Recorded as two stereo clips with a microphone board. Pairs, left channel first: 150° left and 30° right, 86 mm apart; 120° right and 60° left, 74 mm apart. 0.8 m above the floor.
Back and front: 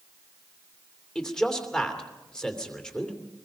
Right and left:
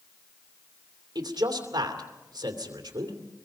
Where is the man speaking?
70° left, 2.5 m.